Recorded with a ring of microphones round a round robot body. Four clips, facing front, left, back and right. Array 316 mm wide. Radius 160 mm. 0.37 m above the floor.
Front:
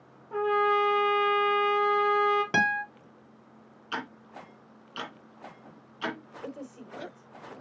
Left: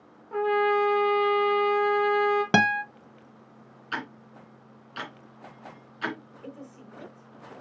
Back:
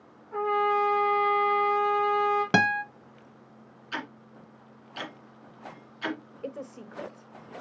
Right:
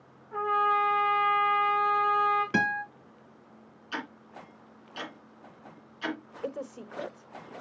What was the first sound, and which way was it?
A trumpet, 55° left.